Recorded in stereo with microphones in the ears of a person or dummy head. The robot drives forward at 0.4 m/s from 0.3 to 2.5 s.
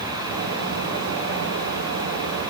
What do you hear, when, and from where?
Only background noise.